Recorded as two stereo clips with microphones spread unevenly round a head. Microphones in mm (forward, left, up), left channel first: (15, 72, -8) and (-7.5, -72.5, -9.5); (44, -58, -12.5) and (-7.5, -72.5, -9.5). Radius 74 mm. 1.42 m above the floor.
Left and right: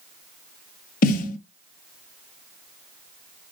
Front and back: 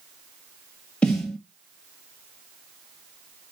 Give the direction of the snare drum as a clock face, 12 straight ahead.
9 o'clock.